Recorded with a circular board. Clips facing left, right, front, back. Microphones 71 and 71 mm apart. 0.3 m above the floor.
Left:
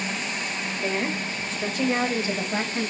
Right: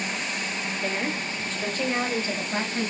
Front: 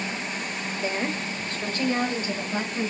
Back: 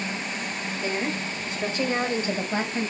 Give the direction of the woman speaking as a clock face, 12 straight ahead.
12 o'clock.